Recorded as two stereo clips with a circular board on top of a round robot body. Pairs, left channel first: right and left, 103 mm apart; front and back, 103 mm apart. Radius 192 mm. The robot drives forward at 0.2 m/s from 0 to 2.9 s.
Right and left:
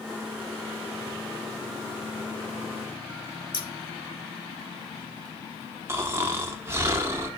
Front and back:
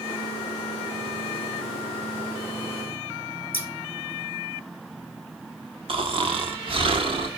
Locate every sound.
3.5 s scissors: 65° right, 1.6 m
5.9 s snoring: 155° left, 1.3 m